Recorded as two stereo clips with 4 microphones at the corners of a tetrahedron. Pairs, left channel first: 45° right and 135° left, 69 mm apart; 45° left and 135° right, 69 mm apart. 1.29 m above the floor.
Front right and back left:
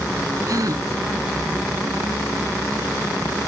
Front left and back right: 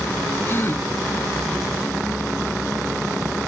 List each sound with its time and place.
0.5 s a gasp: 100° left